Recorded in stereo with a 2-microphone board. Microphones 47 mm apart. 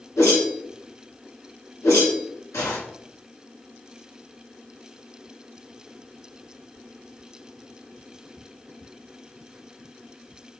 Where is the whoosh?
80° left, 2.5 m.